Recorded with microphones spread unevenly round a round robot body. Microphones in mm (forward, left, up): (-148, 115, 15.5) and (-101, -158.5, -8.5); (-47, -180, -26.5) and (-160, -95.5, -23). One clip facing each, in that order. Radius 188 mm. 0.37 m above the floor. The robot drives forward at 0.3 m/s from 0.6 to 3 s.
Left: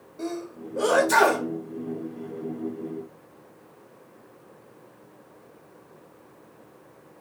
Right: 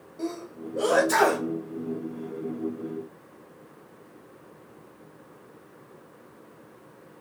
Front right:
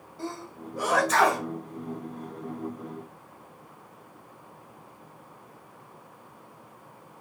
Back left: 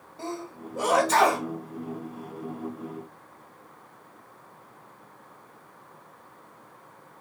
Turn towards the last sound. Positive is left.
turn(degrees=-175)